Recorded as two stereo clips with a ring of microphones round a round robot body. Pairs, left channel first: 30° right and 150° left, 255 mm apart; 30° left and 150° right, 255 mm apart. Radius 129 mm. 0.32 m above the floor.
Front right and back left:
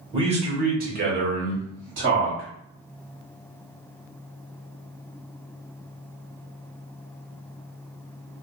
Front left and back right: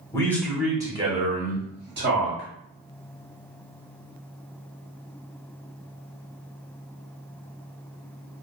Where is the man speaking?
95° left, 1.0 m; by 2.5 s 175° right, 1.6 m.